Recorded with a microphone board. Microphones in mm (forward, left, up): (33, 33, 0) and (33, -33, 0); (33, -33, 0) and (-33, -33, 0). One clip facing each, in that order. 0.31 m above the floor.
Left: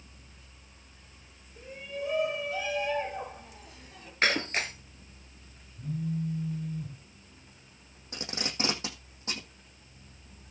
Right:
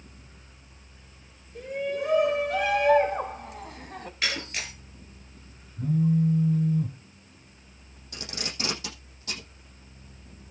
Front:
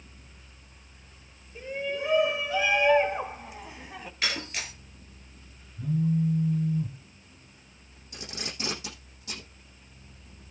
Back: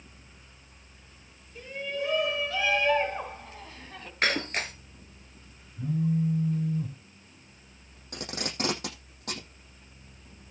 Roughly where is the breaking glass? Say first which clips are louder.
Left 5 dB, back 6 dB; behind left.